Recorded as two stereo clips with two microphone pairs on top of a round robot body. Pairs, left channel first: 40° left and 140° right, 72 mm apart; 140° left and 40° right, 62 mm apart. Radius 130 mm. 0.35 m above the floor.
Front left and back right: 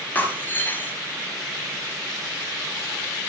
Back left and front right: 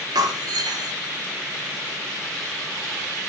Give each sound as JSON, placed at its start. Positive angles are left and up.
{"t": 0.1, "sound": "breaking glass", "azimuth_deg": -25, "distance_m": 2.5}